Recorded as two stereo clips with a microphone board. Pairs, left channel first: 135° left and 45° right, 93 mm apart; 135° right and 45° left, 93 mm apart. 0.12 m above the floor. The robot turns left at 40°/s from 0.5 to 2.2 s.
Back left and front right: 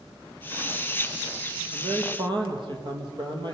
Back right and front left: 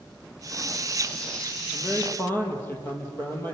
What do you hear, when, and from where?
1.7 s a man speaking: 50° right, 4 m; by 3.5 s 70° right, 4 m